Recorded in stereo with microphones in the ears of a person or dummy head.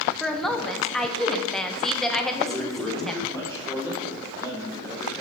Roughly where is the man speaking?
Centre.